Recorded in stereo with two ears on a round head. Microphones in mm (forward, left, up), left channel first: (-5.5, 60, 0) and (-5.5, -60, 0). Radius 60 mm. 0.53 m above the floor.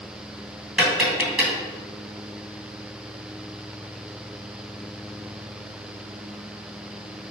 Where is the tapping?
5° right (ahead or behind), 3 m.